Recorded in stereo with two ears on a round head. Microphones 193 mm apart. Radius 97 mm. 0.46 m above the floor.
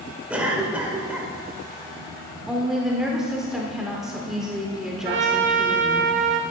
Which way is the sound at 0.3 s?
5° right (ahead or behind).